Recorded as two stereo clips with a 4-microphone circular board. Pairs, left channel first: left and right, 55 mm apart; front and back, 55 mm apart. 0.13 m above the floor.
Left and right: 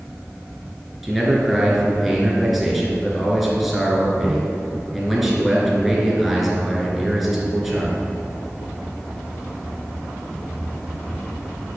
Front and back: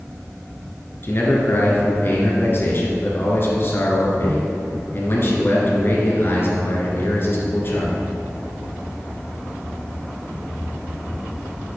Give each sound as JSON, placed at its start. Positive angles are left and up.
{"t": 1.0, "sound": "a man speaking", "azimuth_deg": -5, "distance_m": 1.9}